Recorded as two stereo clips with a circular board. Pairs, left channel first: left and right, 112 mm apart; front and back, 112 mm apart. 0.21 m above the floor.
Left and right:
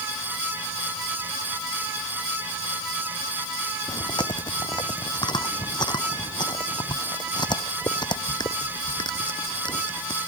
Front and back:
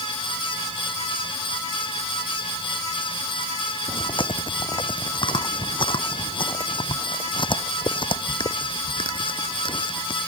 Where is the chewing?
40° left.